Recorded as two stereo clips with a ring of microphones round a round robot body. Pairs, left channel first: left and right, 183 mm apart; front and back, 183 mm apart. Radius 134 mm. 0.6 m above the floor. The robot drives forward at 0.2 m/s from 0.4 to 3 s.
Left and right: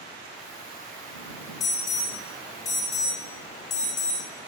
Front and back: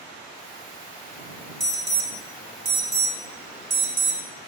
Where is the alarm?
165° left, 3 m.